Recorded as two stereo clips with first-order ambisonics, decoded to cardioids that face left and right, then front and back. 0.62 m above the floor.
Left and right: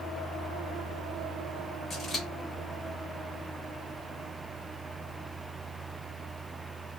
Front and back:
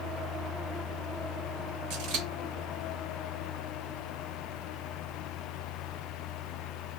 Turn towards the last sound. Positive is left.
turn(degrees=160)